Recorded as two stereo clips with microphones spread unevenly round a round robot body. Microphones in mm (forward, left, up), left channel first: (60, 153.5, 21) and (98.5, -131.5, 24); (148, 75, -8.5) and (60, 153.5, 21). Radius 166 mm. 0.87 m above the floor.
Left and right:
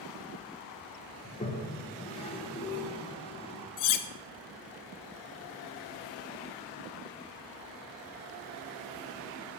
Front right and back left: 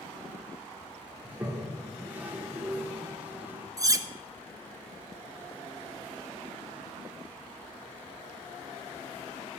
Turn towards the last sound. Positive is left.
turn(degrees=75)